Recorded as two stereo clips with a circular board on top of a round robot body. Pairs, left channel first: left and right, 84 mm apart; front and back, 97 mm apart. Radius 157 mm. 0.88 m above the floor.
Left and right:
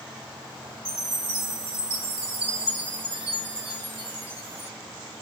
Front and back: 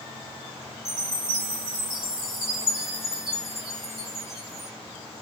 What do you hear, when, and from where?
0.8 s a chime: 100° right, 1.0 m